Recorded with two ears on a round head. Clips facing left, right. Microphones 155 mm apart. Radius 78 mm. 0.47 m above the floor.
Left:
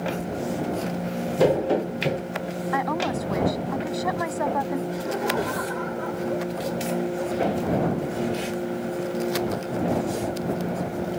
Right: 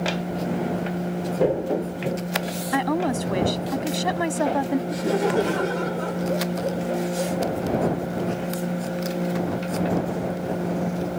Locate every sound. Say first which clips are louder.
0.2 s keys jangling: right 1 dB; 40° left (ahead or behind)
2.7 s a woman speaking: right 3 dB; 40° right (ahead or behind)
4.9 s laughter: right 4 dB; 45° right (ahead or behind)